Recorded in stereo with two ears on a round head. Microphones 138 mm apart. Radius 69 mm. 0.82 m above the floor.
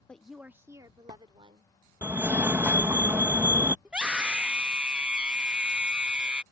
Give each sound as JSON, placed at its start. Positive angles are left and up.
{"t": 0.1, "sound": "a woman speaking", "side_deg": 10}
{"t": 2.0, "sound": "a fire alarm", "side_deg": -15}
{"t": 3.9, "sound": "a scream", "side_deg": -5}